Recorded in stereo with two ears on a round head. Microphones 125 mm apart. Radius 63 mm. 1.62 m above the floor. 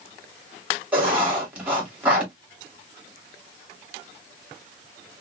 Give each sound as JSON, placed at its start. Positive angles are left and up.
{"t": 0.9, "sound": "writing", "side_deg": -10, "distance_m": 2.0}